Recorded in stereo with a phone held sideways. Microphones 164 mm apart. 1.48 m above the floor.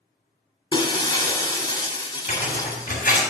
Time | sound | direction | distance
0.7 | breaking glass | 30° left (ahead or behind) | 1.3 m
2.3 | tearing paper | 60° left (ahead or behind) | 3.5 m